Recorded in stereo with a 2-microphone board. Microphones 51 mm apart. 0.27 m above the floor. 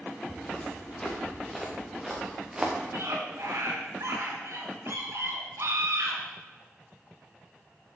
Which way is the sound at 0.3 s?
20° left (ahead or behind).